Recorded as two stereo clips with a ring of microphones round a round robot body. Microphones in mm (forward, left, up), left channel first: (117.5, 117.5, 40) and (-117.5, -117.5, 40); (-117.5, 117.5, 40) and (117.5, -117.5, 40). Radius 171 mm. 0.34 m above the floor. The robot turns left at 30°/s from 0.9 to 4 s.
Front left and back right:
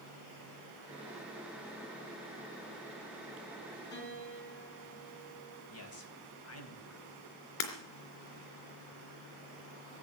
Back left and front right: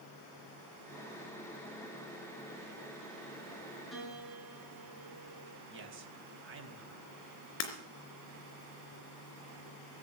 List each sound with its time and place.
3.9 s a piano: 45° left, 5 m; by 5.6 s 40° left, 5 m
5.7 s a man speaking: 5° left, 2.5 m
7.6 s breaking glass: 80° left, 3.5 m